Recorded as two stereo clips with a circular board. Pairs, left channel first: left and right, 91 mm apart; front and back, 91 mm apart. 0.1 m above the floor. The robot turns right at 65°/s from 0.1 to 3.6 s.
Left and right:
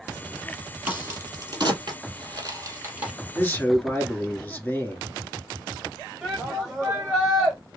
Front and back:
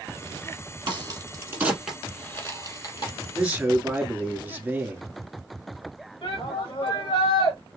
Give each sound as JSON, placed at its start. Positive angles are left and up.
{"t": 0.9, "sound": "a crack", "azimuth_deg": -165, "distance_m": 2.5}
{"t": 3.4, "sound": "a man speaking", "azimuth_deg": 115, "distance_m": 1.7}
{"t": 6.2, "sound": "a shout", "azimuth_deg": -10, "distance_m": 4.5}